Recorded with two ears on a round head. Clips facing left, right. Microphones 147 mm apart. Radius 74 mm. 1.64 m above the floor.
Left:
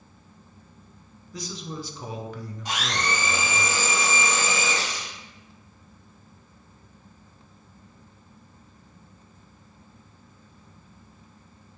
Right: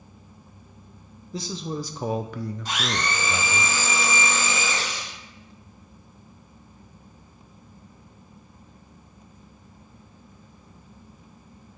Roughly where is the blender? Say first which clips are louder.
Left 1 dB; centre.